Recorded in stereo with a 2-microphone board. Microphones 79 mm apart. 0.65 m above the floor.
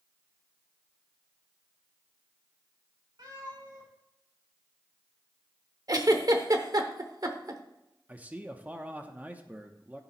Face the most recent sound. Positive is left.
turn(degrees=-20)  # may be behind; listen again after turning